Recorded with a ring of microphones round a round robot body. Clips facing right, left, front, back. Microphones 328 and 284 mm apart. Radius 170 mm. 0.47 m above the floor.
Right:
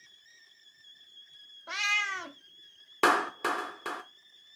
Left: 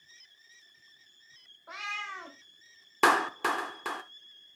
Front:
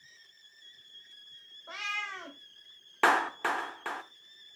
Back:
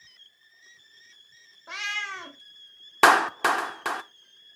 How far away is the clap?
About 0.8 m.